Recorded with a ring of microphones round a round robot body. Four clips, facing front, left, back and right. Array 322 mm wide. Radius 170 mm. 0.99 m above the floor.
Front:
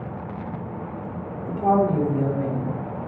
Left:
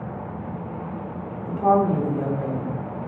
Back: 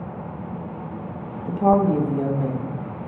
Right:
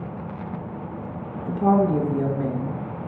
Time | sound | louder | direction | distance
1.5 | a woman speaking | even, back 2 dB | 150° right | 1.7 m